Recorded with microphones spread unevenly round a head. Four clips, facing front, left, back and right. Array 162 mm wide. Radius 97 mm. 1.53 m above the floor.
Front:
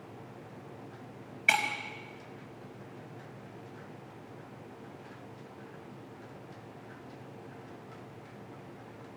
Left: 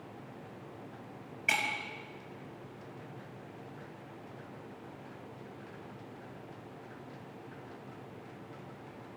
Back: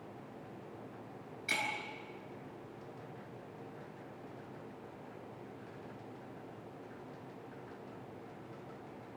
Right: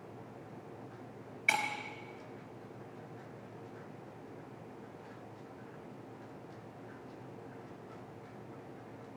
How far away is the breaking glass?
About 5.5 m.